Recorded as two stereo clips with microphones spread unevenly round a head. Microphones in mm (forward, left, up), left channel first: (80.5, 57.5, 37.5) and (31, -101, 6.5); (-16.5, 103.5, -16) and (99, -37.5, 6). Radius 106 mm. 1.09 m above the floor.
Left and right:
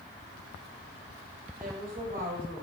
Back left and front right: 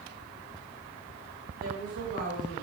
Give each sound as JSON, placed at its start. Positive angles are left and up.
{"t": 1.6, "sound": "a woman speaking", "azimuth_deg": -70, "distance_m": 5.5}